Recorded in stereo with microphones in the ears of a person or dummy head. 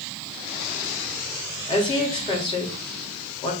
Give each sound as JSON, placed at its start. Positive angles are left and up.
{"t": 1.7, "sound": "a woman speaking", "side_deg": 30, "distance_m": 3.0}